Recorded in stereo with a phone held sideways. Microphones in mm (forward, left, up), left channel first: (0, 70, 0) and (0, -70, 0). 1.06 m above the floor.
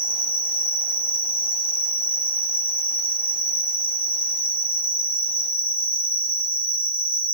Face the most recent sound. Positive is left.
turn(degrees=40)  # may be behind; listen again after turning